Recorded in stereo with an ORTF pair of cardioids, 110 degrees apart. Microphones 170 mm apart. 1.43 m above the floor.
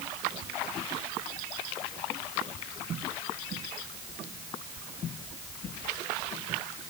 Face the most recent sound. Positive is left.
No sound to turn to.